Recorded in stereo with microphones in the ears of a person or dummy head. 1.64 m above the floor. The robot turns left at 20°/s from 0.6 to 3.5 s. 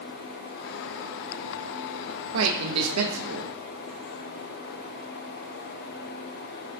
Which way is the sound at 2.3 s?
75° right (ahead or behind).